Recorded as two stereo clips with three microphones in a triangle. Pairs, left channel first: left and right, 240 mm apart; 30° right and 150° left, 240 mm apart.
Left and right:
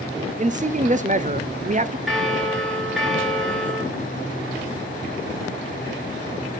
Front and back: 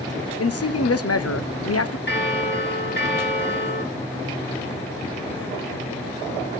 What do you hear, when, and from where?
0.4 s a man speaking: 30° right, 0.7 m
2.1 s a bell: straight ahead, 1.8 m